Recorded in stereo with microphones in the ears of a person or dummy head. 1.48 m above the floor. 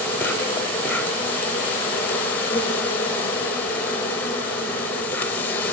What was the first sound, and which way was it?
An insect, 10° left (ahead or behind).